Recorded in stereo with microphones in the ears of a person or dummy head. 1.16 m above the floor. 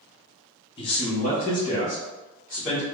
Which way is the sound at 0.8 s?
25° left (ahead or behind).